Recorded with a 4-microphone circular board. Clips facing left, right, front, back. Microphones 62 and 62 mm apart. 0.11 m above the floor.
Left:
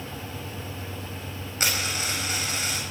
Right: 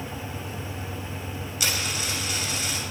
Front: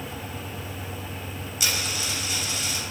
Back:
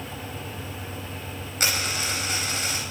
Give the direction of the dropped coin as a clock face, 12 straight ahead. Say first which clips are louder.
Left 1 dB, back 3 dB; 7 o'clock.